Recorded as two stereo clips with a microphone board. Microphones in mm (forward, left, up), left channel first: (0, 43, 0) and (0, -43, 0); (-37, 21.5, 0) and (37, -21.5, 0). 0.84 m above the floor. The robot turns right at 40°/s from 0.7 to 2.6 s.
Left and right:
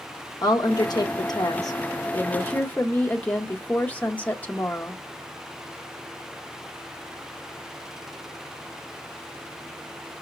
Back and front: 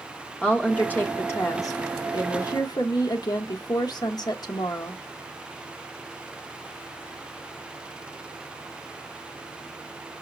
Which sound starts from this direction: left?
A woman speaking, at 0.4 s.